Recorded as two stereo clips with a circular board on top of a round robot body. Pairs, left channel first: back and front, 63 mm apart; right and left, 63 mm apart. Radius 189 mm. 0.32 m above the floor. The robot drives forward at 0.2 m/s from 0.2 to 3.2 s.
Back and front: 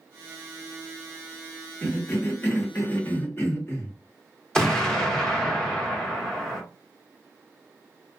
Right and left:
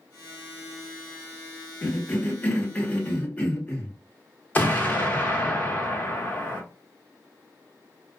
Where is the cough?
135° right, 1.0 m; by 4.0 s 145° right, 1.2 m.